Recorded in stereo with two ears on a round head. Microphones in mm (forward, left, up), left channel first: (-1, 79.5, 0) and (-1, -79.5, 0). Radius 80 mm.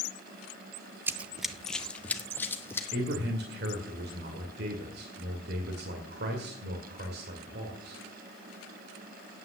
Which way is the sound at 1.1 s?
15° right (ahead or behind).